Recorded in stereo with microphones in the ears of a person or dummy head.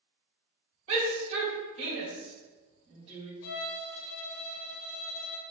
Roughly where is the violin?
Left.